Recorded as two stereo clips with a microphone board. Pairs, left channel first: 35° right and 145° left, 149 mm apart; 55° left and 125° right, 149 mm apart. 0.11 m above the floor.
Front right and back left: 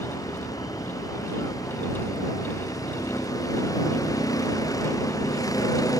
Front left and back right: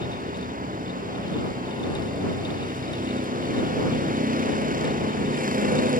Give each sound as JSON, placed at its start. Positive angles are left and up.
{"t": 0.0, "sound": "a vehicle", "azimuth_deg": -100}